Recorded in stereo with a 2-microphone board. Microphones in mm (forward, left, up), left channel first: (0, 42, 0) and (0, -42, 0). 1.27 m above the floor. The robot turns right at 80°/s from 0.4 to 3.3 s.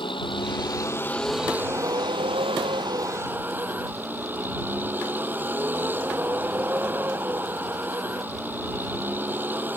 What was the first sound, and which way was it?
A vehicle, 105° left.